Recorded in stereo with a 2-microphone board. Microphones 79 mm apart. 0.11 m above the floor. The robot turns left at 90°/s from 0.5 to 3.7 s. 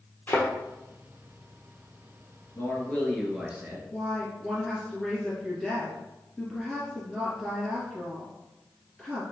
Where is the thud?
25° left (ahead or behind), 1.3 m.